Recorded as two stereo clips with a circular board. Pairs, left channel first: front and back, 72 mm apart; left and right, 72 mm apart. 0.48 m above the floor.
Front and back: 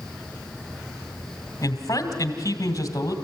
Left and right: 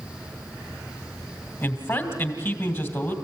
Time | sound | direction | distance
1.6 | a man speaking | 40° left | 2.5 m